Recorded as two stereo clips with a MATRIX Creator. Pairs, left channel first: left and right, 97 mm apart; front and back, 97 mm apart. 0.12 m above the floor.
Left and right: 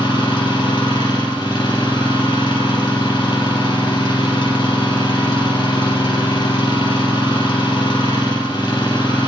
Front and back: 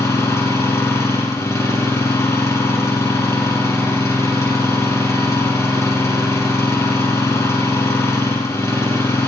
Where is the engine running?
60° left, 3 m.